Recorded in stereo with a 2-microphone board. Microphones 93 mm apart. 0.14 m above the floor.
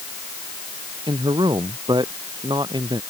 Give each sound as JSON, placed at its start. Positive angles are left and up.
{"t": 1.1, "sound": "a man speaking", "side_deg": -55}